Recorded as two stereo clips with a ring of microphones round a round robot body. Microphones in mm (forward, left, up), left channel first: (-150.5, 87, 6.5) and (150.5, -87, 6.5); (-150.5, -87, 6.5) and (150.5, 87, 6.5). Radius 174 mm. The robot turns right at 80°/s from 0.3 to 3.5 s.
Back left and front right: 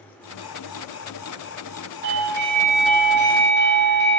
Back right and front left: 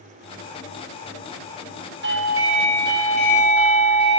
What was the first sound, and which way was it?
A doorbell, 5° right.